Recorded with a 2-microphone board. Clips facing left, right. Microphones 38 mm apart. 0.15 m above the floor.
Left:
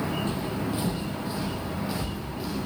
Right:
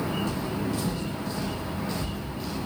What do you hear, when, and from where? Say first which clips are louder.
0.3 s footsteps: even; 35° left (ahead or behind), 2.5 m; by 2.6 s 5° left (ahead or behind), 5.5 m